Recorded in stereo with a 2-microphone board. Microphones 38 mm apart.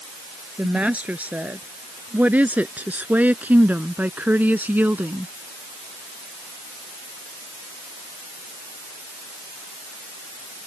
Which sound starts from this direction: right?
A woman speaking, at 0.6 s.